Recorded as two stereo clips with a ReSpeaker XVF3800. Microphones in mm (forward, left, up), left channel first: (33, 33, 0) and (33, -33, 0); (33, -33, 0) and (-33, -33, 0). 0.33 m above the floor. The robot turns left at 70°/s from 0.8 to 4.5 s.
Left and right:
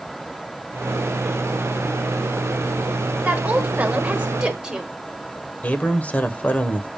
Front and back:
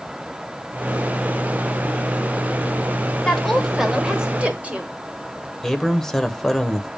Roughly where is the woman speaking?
Ahead right.